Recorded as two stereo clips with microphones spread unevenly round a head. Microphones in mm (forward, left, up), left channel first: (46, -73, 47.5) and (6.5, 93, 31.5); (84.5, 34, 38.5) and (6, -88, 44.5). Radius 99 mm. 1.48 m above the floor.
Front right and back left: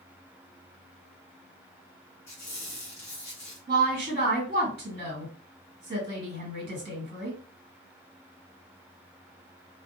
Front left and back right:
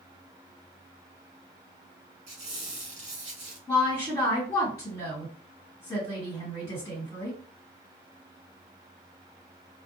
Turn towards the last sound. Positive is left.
turn(degrees=130)